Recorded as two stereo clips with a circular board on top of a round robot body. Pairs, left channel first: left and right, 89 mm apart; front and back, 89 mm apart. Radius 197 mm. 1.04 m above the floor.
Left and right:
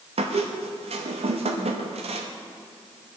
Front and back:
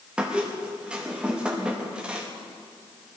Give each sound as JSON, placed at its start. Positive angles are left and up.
{"t": 0.2, "sound": "a squeak", "azimuth_deg": -100, "distance_m": 0.8}